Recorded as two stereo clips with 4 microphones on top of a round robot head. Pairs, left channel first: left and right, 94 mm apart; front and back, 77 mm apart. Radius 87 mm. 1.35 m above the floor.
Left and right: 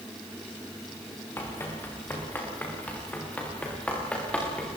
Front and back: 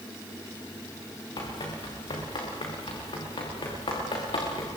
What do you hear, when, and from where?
1.4 s running footsteps: 25° left, 9 m; by 4.8 s 10° left, 10 m